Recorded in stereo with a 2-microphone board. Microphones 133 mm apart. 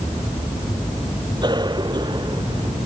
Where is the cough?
35° right (ahead or behind).